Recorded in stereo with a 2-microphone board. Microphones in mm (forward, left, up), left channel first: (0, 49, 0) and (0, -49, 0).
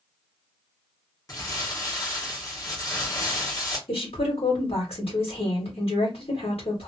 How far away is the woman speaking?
About 1.5 m.